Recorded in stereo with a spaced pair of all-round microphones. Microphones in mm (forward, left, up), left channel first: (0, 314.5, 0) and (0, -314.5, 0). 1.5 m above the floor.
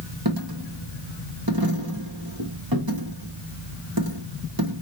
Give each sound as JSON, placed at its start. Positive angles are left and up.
{"t": 0.2, "sound": "a dropped coin", "side_deg": -35, "distance_m": 1.2}